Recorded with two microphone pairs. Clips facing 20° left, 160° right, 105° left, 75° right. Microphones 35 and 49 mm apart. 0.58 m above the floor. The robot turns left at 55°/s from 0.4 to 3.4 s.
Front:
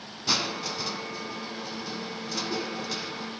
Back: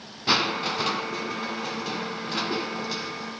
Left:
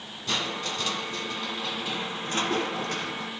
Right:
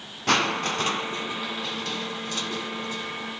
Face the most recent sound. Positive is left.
turn(degrees=95)